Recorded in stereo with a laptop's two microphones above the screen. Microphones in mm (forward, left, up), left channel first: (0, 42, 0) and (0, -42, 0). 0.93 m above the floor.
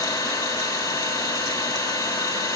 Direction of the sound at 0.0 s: 65° left (ahead or behind).